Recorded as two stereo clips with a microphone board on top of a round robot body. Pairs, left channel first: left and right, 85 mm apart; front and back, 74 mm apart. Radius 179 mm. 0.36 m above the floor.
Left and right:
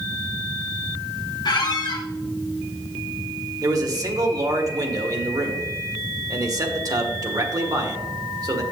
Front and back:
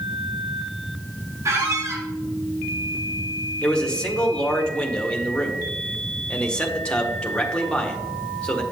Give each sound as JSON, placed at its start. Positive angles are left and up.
{"t": 1.4, "sound": "a squeak", "azimuth_deg": 130, "distance_m": 1.2}
{"t": 3.6, "sound": "a man speaking", "azimuth_deg": -70, "distance_m": 1.6}